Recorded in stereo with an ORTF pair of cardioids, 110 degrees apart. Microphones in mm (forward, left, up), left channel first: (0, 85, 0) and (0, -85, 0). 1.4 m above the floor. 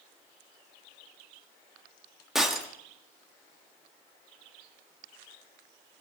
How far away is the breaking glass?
About 1.6 m.